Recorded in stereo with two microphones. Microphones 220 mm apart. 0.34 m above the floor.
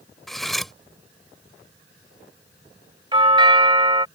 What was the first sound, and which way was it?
Cutlery clinking, centre (ahead or behind).